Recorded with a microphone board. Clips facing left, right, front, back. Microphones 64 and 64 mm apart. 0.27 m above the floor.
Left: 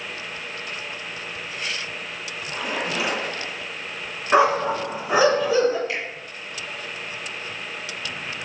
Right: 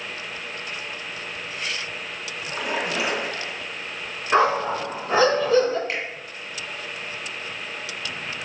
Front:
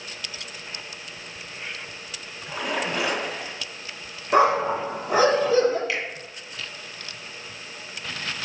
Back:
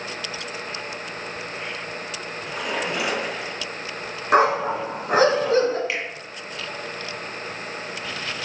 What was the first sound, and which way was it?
A splash, 120° right.